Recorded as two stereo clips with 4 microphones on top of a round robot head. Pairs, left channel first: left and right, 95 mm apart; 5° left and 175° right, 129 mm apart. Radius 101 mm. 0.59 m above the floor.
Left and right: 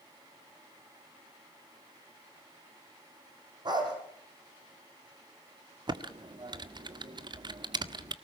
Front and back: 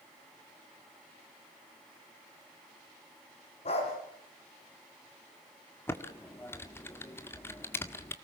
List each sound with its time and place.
3.6 s a dog barking: 50° right, 6.5 m
5.9 s typing on a keyboard: 65° right, 1.8 m